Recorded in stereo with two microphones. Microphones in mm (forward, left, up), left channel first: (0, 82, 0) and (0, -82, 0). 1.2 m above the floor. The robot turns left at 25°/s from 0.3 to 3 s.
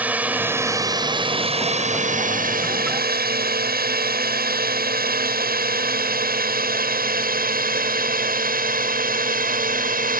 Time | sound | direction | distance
0.0 | a drone | 10° right (ahead or behind) | ?